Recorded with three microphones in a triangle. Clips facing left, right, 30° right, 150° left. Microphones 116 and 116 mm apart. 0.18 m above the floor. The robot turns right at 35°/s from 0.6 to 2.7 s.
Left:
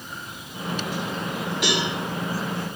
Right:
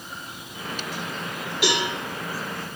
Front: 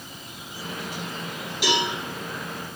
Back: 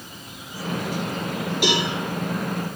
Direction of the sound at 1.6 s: 175° right.